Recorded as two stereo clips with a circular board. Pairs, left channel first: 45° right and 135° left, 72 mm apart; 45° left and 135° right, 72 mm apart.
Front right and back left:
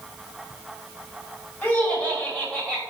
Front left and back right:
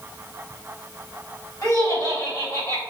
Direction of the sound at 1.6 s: 15° left.